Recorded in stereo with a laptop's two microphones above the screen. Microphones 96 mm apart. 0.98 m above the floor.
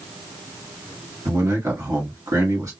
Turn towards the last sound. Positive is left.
turn(degrees=-35)  # may be behind; listen again after turning